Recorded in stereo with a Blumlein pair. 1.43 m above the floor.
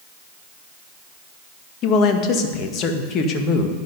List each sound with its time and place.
1.8 s a man speaking: 35° left, 1.9 m